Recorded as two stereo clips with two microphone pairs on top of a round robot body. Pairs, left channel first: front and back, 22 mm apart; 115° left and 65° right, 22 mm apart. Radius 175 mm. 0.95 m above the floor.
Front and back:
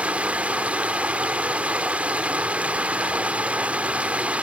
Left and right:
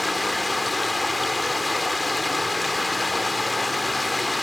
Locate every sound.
0.0 s running water: 150° right